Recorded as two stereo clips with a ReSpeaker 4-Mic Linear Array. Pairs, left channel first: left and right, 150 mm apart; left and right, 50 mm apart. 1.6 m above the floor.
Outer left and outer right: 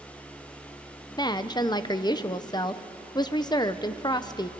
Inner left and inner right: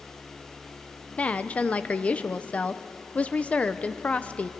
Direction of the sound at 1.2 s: 25° left (ahead or behind).